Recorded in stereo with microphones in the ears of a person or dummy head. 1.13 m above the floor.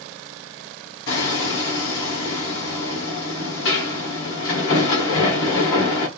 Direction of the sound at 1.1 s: 60° left (ahead or behind).